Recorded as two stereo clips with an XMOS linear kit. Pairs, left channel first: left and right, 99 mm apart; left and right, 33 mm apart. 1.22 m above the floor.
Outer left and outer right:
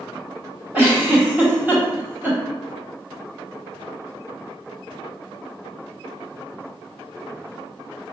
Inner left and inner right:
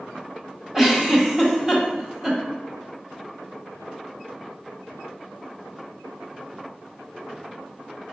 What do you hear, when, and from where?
0.7 s a giggle: 15° right (ahead or behind), 1.2 m